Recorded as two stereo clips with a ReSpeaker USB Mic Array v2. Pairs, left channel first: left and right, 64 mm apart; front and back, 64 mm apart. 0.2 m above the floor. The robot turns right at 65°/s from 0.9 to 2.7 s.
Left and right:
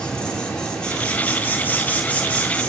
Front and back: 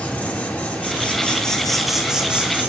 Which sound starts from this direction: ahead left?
An insect, at 0.0 s.